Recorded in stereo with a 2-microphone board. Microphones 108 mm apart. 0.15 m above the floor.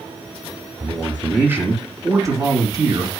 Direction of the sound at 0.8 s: 10° right (ahead or behind).